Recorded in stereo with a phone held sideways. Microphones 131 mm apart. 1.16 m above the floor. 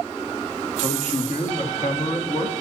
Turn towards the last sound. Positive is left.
turn(degrees=60)  # may be behind; listen again after turning